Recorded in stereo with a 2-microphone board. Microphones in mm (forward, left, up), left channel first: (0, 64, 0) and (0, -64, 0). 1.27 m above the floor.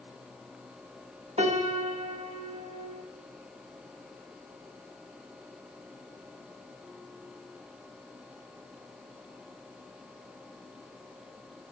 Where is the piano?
60° right (ahead or behind), 2 m.